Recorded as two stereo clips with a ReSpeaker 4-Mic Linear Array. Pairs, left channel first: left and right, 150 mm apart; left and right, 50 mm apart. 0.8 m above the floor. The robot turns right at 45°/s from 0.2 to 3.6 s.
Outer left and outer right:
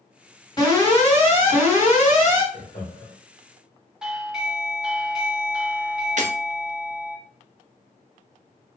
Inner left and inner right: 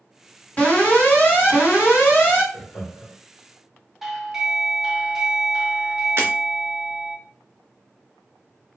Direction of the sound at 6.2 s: 55° right (ahead or behind).